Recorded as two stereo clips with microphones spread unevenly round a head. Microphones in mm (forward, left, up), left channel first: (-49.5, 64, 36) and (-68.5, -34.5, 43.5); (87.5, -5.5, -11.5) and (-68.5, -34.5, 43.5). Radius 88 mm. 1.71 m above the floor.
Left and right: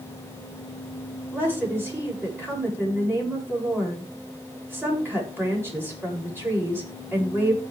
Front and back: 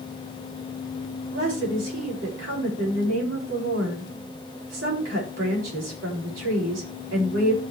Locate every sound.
1.3 s a woman speaking: 170° right, 8.5 m